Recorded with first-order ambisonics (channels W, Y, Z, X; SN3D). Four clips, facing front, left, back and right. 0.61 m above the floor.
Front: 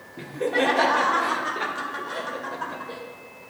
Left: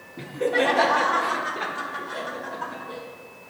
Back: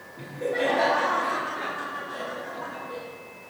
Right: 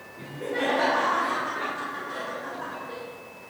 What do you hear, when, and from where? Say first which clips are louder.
0.2 s laughter: left 7 dB, front 4 dB; 50° left, 1.3 m; by 3.0 s 10° left, 2.5 m